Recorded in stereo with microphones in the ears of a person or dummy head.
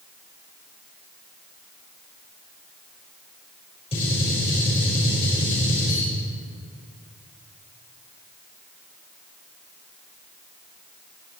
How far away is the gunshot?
About 6 m.